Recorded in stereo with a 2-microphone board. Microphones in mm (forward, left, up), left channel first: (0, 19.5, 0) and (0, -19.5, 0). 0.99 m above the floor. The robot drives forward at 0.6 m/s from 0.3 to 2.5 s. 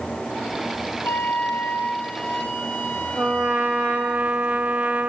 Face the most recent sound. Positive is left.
turn(degrees=-40)  # may be behind; listen again after turning